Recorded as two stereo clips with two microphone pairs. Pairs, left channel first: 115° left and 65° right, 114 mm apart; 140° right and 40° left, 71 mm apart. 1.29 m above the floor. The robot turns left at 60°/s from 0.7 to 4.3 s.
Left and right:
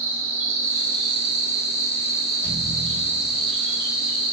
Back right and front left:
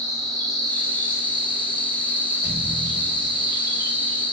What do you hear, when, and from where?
0.0 s an insect: 5° left, 1.7 m; by 4.3 s 150° left, 1.7 m
2.4 s a thud: 145° right, 2.5 m; by 3.5 s 150° left, 2.5 m